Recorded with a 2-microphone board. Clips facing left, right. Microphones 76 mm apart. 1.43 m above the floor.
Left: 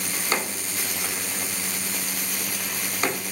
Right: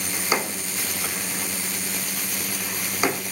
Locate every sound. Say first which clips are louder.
0.1 s a drawer: right 3 dB; 10° right (ahead or behind), 1.3 m